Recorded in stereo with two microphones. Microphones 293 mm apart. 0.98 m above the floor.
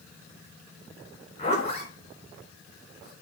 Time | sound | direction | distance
1.4 | a zipper | 20° left (ahead or behind) | 3.5 m